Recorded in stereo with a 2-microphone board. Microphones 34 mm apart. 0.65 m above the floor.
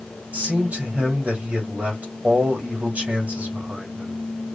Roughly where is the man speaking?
Right.